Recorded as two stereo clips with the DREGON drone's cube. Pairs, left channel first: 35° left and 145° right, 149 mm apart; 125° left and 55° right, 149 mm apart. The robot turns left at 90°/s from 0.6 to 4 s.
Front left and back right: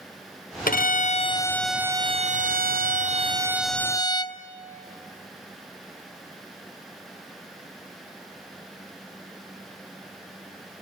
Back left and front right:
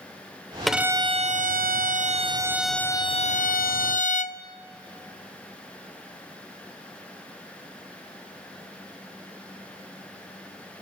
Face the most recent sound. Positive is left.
turn(degrees=95)